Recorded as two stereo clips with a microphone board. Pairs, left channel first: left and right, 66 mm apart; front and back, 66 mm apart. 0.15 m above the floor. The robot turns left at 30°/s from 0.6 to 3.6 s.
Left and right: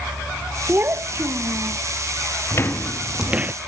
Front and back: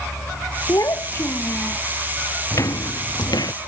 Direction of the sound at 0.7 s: 35° right.